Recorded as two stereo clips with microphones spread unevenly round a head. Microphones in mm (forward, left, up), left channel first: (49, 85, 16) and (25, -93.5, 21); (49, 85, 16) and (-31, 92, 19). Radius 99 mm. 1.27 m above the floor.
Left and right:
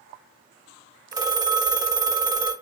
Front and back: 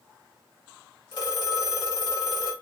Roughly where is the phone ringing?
Ahead right.